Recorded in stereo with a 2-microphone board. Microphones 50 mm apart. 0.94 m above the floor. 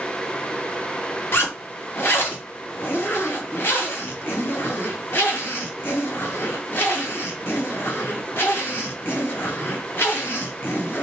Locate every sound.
1.3 s a zipper: 45° left (ahead or behind), 1.1 m